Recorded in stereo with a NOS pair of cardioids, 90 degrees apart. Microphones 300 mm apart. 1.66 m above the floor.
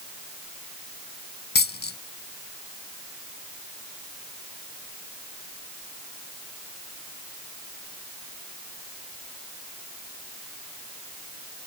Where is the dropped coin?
35° left.